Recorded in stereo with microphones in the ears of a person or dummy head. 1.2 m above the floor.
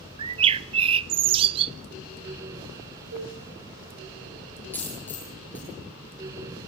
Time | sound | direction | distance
0.2 | a bird | 30° right (ahead or behind) | 0.6 m
3.1 | dishes clattering | 85° right | 9 m
4.7 | a dropped coin | 10° left (ahead or behind) | 9.5 m